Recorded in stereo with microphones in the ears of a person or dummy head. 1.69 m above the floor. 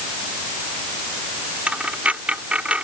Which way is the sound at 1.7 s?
5° right (ahead or behind).